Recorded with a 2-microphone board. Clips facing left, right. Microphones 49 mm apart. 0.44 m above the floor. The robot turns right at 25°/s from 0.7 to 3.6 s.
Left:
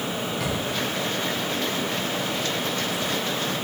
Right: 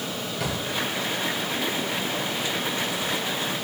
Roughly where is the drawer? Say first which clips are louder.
Right 1 dB; centre.